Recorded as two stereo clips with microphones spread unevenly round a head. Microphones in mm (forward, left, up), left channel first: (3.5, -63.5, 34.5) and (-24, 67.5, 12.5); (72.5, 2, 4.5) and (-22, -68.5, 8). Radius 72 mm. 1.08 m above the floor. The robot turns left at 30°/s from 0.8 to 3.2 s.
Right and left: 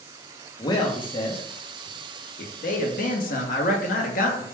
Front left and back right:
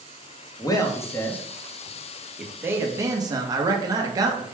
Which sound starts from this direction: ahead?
A man speaking, at 0.6 s.